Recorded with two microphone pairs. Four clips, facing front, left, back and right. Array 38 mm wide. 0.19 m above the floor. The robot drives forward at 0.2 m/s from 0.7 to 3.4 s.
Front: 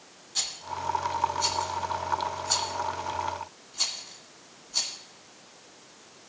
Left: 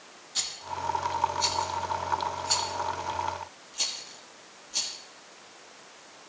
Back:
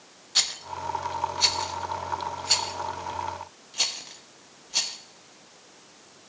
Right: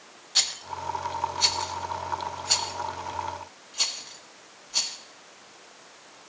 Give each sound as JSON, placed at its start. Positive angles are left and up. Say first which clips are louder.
{"t": 0.3, "sound": "a rattle", "louder": "right 4 dB, back 4 dB", "azimuth_deg": -145, "distance_m": 0.5}